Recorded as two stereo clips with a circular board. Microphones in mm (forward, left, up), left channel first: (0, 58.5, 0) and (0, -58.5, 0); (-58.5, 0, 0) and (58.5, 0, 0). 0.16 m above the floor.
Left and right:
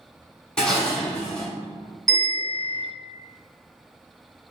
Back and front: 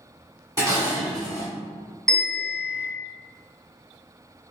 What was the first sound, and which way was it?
Dishes clattering, 15° left.